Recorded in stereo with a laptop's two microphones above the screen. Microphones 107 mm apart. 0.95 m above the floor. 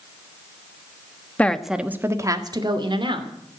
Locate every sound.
1.4 s a woman speaking: 15° left (ahead or behind), 1.2 m; by 3.3 s 55° right (ahead or behind), 3 m